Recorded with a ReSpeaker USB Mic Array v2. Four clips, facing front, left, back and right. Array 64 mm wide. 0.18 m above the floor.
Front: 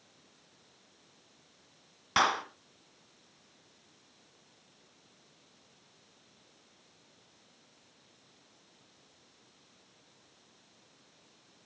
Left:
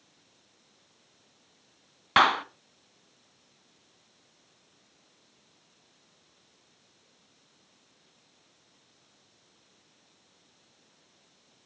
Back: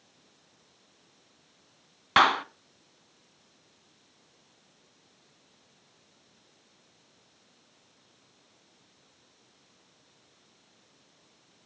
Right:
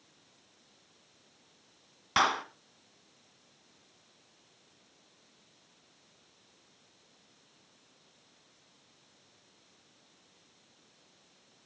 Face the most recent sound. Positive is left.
turn(degrees=130)